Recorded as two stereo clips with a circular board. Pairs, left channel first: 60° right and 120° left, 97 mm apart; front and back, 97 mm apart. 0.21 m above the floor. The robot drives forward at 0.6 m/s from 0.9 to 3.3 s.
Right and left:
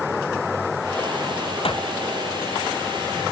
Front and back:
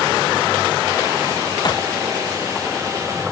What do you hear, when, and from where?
1.6 s a clap: 45° right